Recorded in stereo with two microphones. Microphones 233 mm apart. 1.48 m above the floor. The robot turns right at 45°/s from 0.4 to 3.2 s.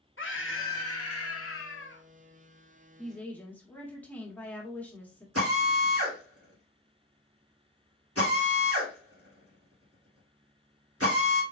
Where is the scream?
60° left, 1.5 m; by 2.0 s 130° left, 1.5 m.